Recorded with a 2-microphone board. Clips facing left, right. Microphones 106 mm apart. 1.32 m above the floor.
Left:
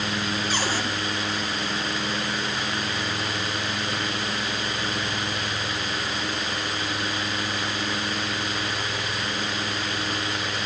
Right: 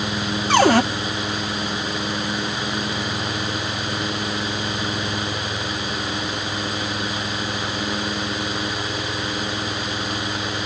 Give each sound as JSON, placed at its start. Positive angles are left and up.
{"t": 0.5, "sound": "a cupboard door", "side_deg": -60, "distance_m": 0.7}